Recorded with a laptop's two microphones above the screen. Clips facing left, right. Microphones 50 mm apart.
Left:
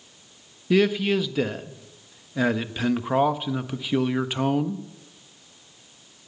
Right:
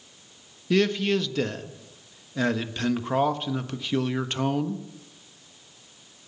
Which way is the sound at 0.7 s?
10° left (ahead or behind).